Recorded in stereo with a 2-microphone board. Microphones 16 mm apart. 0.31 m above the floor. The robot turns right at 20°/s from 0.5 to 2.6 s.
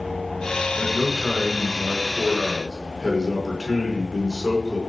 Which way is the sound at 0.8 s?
120° left.